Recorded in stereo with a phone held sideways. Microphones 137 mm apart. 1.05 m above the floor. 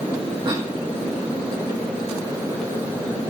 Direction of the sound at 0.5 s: 35° right (ahead or behind).